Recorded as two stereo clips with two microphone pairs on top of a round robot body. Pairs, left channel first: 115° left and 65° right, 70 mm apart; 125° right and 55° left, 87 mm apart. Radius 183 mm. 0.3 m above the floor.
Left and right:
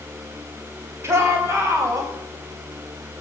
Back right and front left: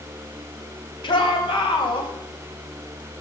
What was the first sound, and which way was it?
A shout, 120° right.